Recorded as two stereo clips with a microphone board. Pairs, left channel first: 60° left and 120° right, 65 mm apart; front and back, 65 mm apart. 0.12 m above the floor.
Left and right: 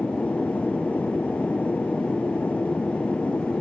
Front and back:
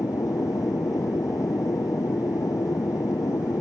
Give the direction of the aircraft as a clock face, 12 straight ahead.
12 o'clock.